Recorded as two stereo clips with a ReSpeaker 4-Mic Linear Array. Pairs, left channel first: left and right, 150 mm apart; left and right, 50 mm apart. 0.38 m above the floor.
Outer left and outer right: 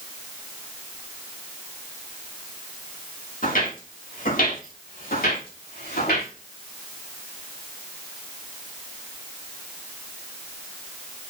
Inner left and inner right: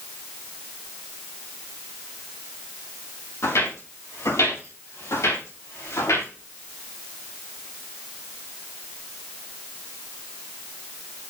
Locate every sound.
3.4 s footsteps: 65° left (ahead or behind), 5 m; by 6.3 s 85° left, 4.5 m